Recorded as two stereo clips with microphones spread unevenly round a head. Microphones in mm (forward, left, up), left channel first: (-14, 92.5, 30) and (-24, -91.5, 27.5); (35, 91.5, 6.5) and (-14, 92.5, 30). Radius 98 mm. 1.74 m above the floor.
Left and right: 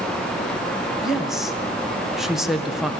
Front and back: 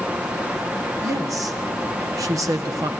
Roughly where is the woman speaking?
Behind.